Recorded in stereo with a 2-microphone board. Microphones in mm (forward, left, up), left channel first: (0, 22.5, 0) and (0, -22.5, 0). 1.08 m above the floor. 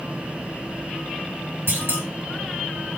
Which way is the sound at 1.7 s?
70° right (ahead or behind).